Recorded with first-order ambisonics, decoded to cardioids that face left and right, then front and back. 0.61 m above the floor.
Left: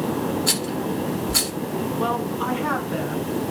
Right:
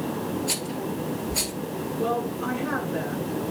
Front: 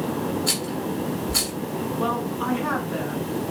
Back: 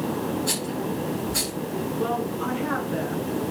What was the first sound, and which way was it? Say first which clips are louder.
A rattle: left 5 dB, front 2 dB; 70° left.